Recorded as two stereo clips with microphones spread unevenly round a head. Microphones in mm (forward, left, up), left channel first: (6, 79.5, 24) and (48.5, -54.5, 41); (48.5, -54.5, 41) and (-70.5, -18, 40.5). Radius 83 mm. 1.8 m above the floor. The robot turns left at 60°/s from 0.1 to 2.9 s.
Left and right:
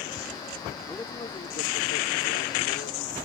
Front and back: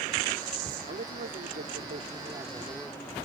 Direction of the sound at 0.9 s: 165° right.